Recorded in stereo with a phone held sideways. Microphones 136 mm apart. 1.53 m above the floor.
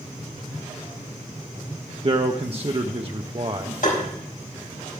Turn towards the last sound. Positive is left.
turn(degrees=70)  # may be behind; listen again after turning